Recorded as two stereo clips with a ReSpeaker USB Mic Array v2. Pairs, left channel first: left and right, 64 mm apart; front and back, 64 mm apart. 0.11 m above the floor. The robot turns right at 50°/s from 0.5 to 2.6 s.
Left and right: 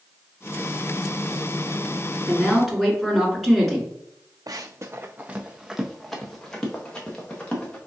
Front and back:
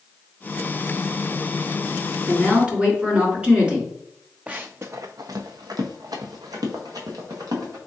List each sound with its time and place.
2.3 s a woman speaking: 160° left, 1.6 m; by 3.9 s straight behind, 1.6 m
4.5 s running footsteps: 110° right, 0.5 m; by 7.8 s 165° left, 1.9 m